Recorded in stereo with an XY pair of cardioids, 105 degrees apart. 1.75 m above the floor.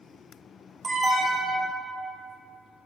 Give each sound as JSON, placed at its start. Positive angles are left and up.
{"t": 0.8, "sound": "an alarm", "azimuth_deg": -40, "distance_m": 0.8}